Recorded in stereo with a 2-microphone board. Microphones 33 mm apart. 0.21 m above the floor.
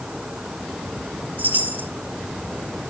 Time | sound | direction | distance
1.4 | a chime | 55° right (ahead or behind) | 4.5 m